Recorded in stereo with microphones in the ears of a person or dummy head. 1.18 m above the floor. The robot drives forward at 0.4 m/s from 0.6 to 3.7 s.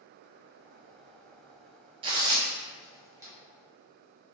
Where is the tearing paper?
25° right (ahead or behind), 0.6 m; by 3.3 s 15° right (ahead or behind), 1.0 m.